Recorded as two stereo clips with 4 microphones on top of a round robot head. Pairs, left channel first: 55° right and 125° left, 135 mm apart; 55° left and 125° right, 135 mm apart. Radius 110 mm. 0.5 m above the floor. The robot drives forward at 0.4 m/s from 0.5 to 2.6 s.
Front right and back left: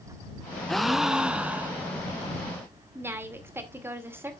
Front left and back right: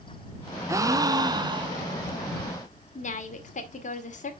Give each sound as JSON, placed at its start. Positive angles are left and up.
{"t": 0.7, "sound": "a gasp", "azimuth_deg": -140, "distance_m": 0.8}
{"t": 3.0, "sound": "a woman speaking", "azimuth_deg": 55, "distance_m": 1.9}